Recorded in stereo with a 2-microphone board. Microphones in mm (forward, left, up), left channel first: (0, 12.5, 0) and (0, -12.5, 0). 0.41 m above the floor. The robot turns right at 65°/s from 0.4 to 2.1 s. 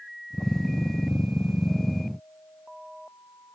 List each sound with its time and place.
Only background noise.